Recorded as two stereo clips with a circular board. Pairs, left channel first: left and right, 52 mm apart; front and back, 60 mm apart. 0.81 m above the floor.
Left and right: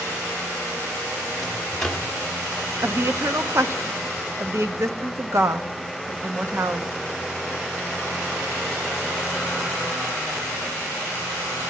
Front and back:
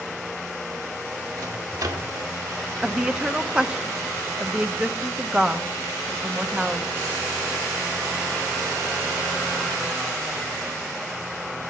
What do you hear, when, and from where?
1.4 s a microwave: 175° left, 1.6 m
2.8 s a woman speaking: 105° right, 0.8 m